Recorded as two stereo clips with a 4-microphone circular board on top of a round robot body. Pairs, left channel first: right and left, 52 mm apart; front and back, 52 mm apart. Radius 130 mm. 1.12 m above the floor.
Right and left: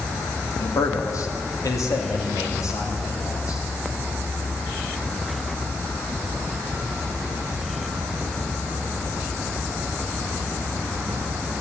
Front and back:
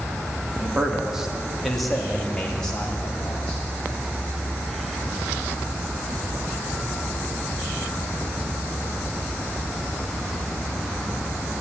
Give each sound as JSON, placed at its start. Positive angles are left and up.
{"t": 0.6, "sound": "a man speaking", "azimuth_deg": -110, "distance_m": 2.5}